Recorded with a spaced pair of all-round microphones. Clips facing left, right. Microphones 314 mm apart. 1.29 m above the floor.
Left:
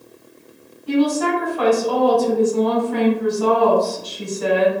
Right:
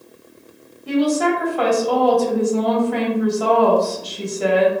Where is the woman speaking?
75° right (ahead or behind), 1.3 m.